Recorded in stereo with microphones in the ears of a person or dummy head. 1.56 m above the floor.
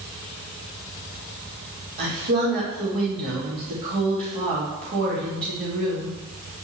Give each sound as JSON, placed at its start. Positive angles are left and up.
{"t": 2.0, "sound": "a woman speaking", "side_deg": -40, "distance_m": 3.0}